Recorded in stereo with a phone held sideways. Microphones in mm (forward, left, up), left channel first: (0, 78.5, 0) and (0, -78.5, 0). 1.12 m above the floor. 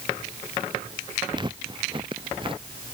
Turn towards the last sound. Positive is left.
turn(degrees=-35)  # may be behind; listen again after turning